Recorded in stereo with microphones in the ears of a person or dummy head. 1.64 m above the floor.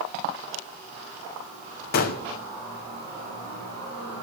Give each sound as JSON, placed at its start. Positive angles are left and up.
{"t": 1.9, "sound": "a gunshot", "side_deg": 60, "distance_m": 0.8}